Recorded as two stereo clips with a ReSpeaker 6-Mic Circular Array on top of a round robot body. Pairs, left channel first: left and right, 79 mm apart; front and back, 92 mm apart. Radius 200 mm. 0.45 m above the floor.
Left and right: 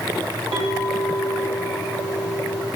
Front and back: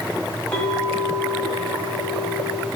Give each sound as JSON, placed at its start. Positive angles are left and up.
{"t": 0.5, "sound": "a clink", "azimuth_deg": -75, "distance_m": 2.0}